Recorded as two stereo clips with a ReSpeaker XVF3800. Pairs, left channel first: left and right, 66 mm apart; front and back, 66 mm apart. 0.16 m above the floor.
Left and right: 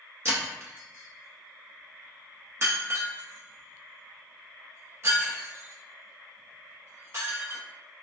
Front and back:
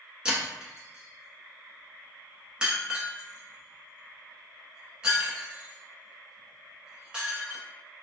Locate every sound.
0.2 s breaking glass: 110° right, 1.0 m